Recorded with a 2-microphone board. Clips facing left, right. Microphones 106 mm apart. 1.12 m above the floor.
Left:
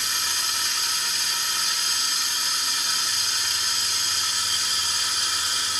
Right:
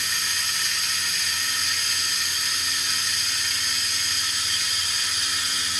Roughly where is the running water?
Left.